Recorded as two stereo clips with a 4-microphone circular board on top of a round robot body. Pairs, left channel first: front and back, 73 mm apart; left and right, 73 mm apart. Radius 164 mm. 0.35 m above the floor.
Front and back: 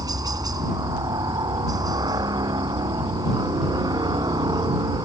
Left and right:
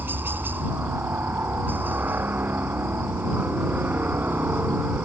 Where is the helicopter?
150° right; by 5.1 s 155° right.